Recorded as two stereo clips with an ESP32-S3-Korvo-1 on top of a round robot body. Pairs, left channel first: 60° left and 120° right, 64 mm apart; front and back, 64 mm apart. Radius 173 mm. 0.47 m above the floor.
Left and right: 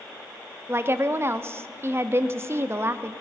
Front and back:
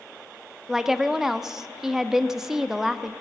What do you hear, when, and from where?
0.7 s a woman speaking: 100° right, 0.9 m